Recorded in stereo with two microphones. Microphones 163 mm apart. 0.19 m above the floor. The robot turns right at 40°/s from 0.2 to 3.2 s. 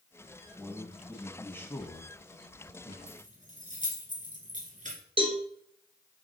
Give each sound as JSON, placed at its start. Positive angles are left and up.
{"t": 0.6, "sound": "a man speaking", "side_deg": 0, "distance_m": 1.0}
{"t": 3.1, "sound": "keys jangling", "side_deg": -55, "distance_m": 2.0}
{"t": 5.2, "sound": "a cowbell", "side_deg": -35, "distance_m": 2.0}